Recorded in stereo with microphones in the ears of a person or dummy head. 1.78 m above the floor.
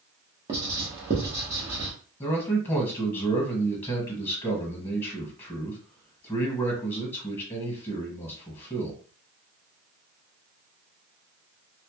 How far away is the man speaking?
About 1.1 m.